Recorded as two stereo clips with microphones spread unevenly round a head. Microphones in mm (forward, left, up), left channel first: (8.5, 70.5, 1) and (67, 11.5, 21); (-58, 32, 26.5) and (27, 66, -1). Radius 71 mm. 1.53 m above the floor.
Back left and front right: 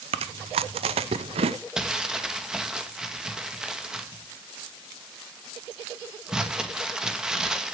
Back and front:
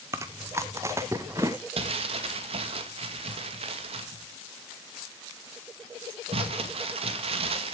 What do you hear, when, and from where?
0.1 s chewing: 50° right, 0.7 m
1.8 s crumpling: 35° left, 2 m